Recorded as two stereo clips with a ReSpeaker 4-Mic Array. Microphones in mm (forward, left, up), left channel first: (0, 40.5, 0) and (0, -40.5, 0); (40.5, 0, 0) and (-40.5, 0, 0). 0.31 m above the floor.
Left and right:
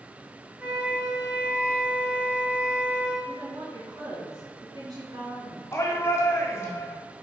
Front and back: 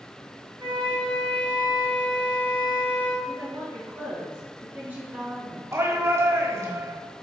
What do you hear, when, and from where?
0.6 s a flute: 165° right, 2 m
3.2 s a woman speaking: 115° right, 3 m
5.7 s a shout: 135° left, 1.7 m